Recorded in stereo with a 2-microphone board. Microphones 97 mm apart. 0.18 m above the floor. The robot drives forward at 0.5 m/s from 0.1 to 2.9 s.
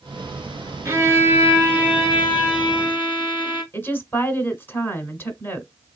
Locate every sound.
0.8 s a violin: 30° right (ahead or behind), 0.9 m; by 3.6 s 15° right (ahead or behind), 1.8 m
3.7 s a woman speaking: 20° left (ahead or behind), 1.1 m